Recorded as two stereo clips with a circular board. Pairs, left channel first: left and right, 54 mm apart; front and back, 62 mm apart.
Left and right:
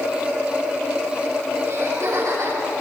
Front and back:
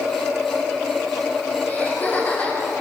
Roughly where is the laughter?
Ahead right.